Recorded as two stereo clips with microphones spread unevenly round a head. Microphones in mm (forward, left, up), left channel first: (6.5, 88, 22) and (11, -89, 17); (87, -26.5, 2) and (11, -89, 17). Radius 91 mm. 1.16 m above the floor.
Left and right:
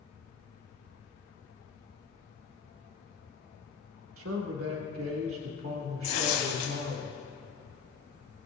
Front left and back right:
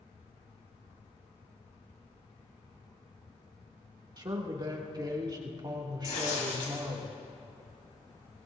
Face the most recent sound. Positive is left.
turn(degrees=60)